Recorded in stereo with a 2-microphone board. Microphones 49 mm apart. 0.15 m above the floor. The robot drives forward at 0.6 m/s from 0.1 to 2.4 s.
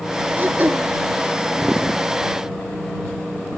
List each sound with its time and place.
0.4 s throat clearing: 40° right (ahead or behind)